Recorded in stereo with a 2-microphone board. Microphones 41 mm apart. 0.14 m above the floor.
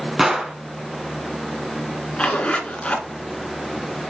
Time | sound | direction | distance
0.2 | a gunshot | 10° right (ahead or behind) | 0.9 m
2.2 | a zipper | 25° left (ahead or behind) | 1.9 m